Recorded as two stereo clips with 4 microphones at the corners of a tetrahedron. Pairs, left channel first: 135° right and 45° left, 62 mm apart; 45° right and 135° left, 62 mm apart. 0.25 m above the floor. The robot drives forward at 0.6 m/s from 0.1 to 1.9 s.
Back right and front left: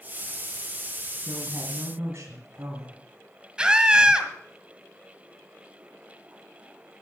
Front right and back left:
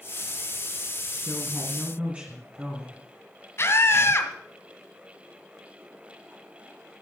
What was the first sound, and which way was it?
A woman speaking, 60° left.